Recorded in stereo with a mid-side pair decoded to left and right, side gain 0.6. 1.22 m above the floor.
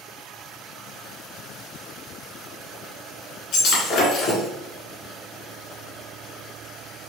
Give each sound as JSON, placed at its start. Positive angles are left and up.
{"t": 3.5, "sound": "breaking glass", "azimuth_deg": 70, "distance_m": 1.7}